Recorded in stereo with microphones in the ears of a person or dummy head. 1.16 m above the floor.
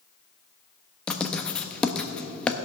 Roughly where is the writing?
Centre.